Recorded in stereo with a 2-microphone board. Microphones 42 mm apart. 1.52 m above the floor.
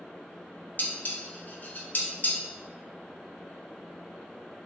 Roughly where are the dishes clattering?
Left.